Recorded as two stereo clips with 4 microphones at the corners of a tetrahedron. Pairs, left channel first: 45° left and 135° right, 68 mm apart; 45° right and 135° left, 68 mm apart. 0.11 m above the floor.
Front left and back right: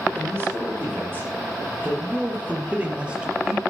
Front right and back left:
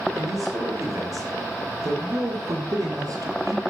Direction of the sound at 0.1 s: 170° left.